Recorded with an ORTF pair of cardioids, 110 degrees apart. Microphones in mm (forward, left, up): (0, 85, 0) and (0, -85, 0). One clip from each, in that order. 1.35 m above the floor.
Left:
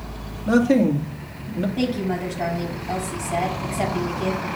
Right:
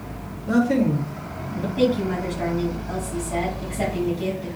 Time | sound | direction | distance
0.5 | a man speaking | 45° left | 2.5 m
1.8 | a woman speaking | 15° left | 6 m